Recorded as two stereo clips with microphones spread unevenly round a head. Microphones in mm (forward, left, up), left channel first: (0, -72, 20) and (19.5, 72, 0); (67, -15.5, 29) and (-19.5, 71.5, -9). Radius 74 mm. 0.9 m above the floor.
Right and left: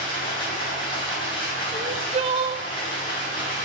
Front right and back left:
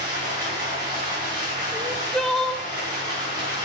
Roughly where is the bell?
I don't hear a bell.